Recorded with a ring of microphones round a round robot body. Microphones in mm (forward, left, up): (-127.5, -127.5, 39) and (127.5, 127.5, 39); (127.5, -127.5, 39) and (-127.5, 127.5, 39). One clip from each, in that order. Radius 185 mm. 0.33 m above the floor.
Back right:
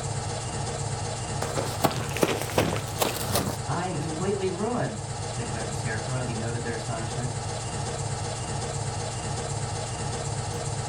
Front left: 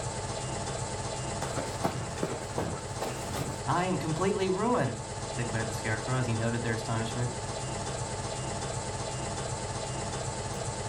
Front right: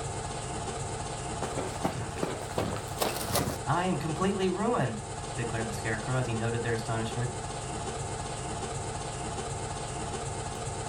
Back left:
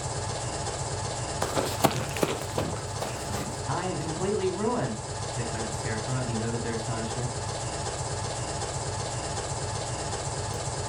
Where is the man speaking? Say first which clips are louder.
Front left 1 dB, even; 25° left, 3 m.